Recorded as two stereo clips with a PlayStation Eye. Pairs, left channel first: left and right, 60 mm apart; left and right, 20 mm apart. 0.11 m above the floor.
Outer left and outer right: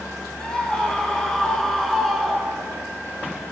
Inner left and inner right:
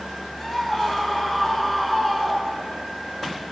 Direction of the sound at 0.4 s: 10° left (ahead or behind).